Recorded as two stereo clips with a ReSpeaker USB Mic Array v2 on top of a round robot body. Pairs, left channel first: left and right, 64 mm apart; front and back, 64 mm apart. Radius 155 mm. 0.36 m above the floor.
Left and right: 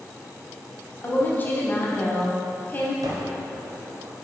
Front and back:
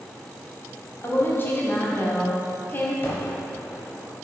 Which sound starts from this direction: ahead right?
A gunshot, at 3.0 s.